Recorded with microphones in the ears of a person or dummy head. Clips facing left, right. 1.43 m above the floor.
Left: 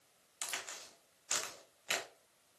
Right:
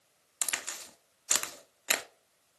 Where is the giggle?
No giggle in this recording.